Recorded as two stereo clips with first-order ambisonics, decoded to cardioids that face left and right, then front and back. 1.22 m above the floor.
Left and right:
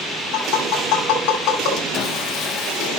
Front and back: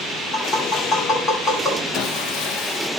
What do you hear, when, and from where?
0.3 s tapping: 50° left, 6 m
1.9 s sawing: 40° left, 0.9 m